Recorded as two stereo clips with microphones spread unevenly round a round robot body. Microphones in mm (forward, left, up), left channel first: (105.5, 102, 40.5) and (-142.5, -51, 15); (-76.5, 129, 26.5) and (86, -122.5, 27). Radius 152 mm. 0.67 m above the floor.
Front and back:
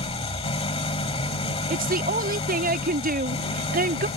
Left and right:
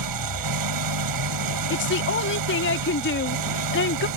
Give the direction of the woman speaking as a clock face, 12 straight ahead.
7 o'clock.